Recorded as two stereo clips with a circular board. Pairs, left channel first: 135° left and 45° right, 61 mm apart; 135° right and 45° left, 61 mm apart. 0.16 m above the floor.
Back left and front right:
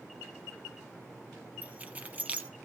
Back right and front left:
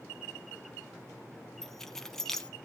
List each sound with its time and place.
1.6 s keys jangling: 65° right, 0.8 m